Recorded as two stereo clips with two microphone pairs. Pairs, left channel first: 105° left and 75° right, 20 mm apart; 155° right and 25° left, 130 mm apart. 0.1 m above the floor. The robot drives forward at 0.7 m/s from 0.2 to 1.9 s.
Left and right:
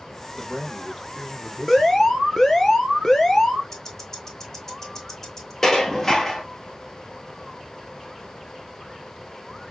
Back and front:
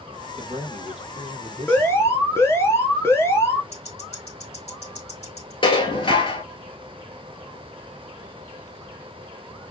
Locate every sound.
0.4 s a man speaking: 10° left, 2 m; by 2.1 s 25° left, 1.3 m
1.7 s an alarm: 150° left, 1.1 m; by 3.6 s 155° left, 1.2 m
3.7 s ticking: 175° left, 3 m
5.6 s dishes clattering: 165° left, 1.2 m